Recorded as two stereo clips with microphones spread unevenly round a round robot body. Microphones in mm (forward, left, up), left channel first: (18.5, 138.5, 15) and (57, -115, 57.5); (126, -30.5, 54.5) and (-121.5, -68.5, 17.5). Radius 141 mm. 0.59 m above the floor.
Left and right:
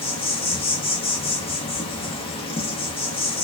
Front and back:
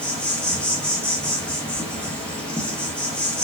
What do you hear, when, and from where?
0.0 s an insect: 105° left, 0.9 m